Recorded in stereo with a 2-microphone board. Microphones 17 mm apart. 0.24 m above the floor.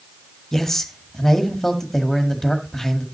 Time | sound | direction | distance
0.5 | a man speaking | 20° left (ahead or behind) | 1.5 m